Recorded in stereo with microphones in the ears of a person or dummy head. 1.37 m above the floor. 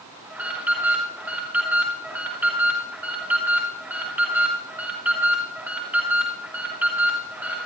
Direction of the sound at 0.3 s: 5° right (ahead or behind).